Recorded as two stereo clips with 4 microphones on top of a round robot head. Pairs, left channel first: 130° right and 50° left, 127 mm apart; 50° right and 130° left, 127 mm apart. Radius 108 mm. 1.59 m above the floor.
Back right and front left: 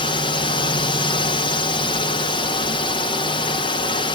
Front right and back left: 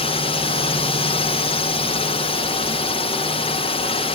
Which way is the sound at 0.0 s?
85° right.